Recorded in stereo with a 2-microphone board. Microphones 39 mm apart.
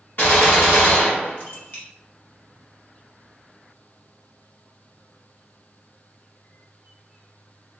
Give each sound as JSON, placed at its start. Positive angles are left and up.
{"t": 0.2, "sound": "a gunshot", "side_deg": 60, "distance_m": 2.0}